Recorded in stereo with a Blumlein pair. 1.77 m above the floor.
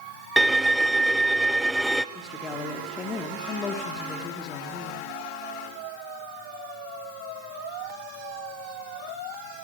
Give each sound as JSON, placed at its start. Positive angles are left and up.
{"t": 0.4, "sound": "a violin", "azimuth_deg": -5, "distance_m": 1.0}
{"t": 2.1, "sound": "a woman speaking", "azimuth_deg": 25, "distance_m": 3.5}